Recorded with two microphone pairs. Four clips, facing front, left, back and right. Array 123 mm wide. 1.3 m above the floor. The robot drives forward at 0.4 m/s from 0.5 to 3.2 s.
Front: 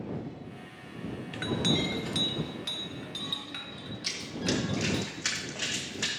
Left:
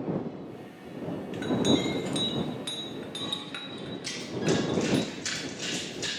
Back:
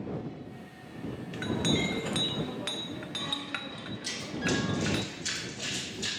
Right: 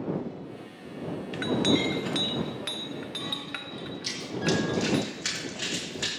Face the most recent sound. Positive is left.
turn(degrees=-40)